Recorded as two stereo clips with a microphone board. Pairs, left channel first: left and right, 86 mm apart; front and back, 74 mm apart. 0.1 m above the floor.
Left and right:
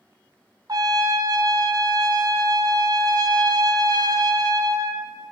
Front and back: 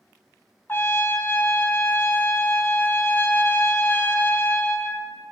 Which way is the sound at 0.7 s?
55° right.